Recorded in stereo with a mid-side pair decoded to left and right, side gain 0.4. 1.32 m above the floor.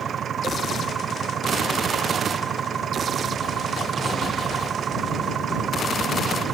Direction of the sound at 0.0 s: 60° right.